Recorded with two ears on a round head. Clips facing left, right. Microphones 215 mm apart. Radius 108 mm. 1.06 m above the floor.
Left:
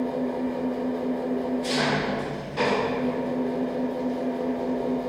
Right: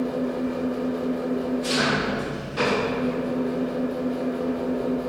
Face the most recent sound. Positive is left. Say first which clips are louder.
# right 1 dB
turn(degrees=-10)  # may be behind; listen again after turning